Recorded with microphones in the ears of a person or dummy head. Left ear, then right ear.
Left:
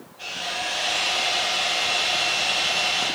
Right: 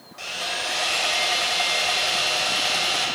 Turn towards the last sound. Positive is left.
turn(degrees=-60)  # may be behind; listen again after turning